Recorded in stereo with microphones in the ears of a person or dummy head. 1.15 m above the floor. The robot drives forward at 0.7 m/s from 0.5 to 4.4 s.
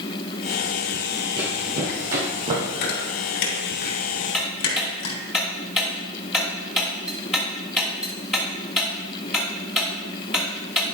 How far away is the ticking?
About 1.1 m.